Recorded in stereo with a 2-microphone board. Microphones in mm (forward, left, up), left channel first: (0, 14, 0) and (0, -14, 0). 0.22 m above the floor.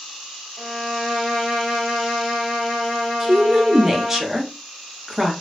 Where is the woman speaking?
15° right (ahead or behind), 1.0 m.